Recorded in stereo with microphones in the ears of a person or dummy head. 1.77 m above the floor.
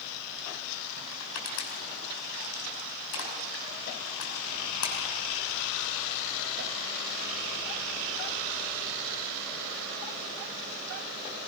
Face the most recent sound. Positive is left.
turn(degrees=65)  # may be behind; listen again after turning